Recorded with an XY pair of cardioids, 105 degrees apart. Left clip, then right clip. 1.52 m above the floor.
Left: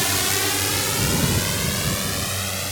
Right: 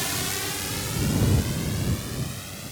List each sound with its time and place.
0.0 s a drone: 45° left; by 2.7 s 75° left